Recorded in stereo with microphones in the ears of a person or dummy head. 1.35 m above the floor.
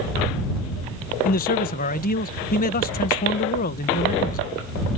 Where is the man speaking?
45° left (ahead or behind).